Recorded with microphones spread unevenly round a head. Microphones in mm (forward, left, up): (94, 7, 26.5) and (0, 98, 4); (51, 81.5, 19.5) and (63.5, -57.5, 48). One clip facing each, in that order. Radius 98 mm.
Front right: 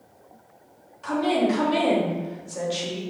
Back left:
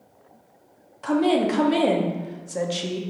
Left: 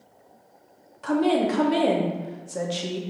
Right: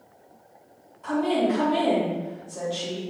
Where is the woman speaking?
115° left, 0.7 m.